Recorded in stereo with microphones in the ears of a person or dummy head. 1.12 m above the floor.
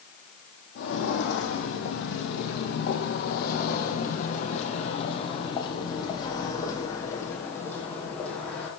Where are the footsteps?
65° left (ahead or behind), 3 m; by 8.7 s 10° left (ahead or behind), 3.5 m.